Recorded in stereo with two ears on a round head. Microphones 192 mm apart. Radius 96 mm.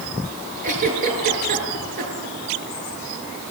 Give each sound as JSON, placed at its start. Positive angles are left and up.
{"t": 0.6, "sound": "a giggle", "side_deg": -40, "distance_m": 6.5}